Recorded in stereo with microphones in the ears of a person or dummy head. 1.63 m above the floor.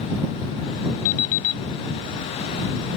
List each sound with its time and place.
1.1 s an alarm clock: 55° left (ahead or behind)